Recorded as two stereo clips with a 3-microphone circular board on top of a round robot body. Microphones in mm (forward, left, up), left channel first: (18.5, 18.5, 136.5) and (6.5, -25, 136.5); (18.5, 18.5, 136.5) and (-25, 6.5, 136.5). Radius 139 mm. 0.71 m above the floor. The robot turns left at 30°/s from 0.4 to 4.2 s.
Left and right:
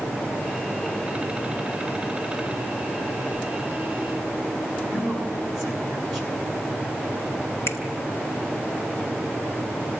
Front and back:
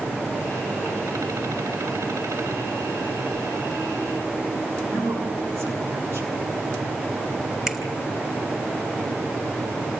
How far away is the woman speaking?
About 9.5 m.